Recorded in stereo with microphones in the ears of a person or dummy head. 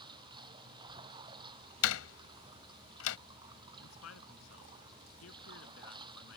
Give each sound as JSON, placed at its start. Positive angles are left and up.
{"t": 0.0, "sound": "running water", "side_deg": -25}
{"t": 1.8, "sound": "a door slam", "side_deg": 85}
{"t": 3.8, "sound": "a man speaking", "side_deg": 85}